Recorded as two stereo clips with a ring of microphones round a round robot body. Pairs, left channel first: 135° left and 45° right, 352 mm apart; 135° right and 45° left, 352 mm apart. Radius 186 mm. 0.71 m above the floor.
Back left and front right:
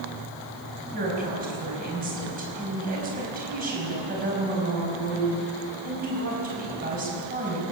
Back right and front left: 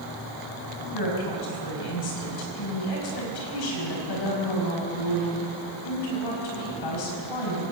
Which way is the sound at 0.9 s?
110° right.